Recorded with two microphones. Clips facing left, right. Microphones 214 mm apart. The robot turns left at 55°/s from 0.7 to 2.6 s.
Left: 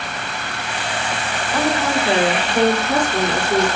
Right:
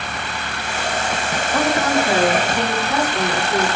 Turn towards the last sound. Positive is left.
turn(degrees=130)